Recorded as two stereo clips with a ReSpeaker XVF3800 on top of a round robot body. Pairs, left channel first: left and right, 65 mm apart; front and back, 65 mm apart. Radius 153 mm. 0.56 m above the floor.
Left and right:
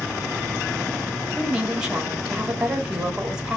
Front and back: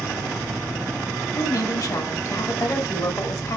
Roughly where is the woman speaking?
Ahead.